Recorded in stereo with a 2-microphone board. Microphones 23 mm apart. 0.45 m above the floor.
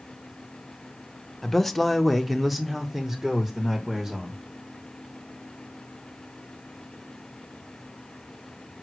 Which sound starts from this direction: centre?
A man speaking, at 1.4 s.